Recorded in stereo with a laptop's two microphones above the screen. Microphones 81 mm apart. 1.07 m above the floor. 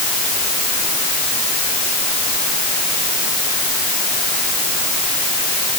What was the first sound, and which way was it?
Only background noise.